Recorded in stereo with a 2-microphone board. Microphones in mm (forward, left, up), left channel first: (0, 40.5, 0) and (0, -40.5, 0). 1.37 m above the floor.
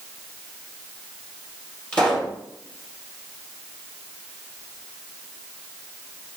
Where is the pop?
15° left (ahead or behind), 2.5 m.